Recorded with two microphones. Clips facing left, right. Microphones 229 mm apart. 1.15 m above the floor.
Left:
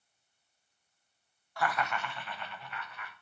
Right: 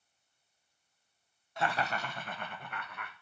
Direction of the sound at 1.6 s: 20° right (ahead or behind).